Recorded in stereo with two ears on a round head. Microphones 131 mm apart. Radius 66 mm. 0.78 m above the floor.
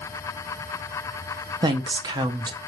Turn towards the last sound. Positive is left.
turn(degrees=-30)  # may be behind; listen again after turning